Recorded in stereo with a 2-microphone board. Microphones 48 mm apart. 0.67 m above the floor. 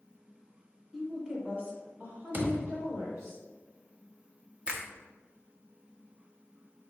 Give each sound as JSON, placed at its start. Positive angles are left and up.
{"t": 0.9, "sound": "a woman speaking", "side_deg": -5, "distance_m": 1.1}
{"t": 2.3, "sound": "a thud", "side_deg": -45, "distance_m": 1.1}
{"t": 4.7, "sound": "a finger snap", "side_deg": -25, "distance_m": 0.6}